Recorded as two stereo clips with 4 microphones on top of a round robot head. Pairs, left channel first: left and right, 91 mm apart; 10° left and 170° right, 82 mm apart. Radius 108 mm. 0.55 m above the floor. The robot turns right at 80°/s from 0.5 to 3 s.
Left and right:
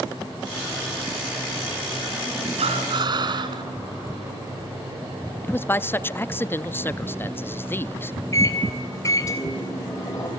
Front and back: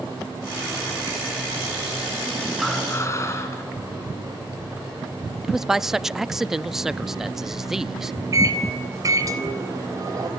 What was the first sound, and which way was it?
Breathing, 85° right.